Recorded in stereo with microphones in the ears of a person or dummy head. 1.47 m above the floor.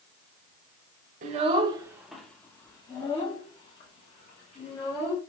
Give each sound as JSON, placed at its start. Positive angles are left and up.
{"t": 1.2, "sound": "a child speaking", "side_deg": -45, "distance_m": 0.6}